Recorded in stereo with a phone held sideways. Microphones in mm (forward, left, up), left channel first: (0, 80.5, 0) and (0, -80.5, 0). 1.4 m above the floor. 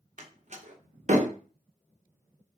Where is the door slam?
50° right (ahead or behind), 0.8 m.